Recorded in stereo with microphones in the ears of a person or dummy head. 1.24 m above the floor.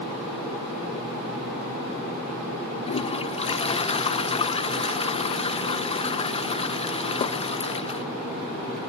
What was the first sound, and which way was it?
A toilet flushing, 30° left (ahead or behind).